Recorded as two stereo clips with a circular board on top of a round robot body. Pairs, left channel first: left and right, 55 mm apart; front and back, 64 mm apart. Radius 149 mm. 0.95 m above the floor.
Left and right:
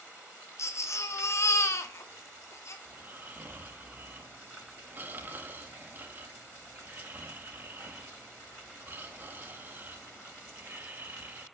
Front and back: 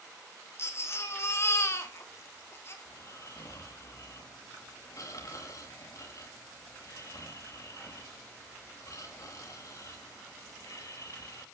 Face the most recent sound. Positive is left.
turn(degrees=-35)